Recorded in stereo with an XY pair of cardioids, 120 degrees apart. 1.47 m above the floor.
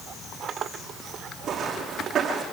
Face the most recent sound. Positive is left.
turn(degrees=-45)